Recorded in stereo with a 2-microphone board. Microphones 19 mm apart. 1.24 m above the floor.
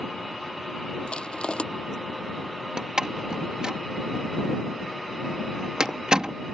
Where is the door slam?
40° right (ahead or behind).